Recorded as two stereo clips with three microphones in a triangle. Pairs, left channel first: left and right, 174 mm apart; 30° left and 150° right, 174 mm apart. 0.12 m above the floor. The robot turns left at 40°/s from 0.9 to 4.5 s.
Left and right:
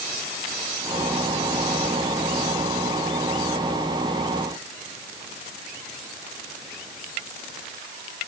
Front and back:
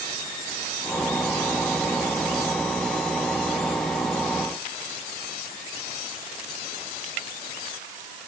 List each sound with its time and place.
Only background noise.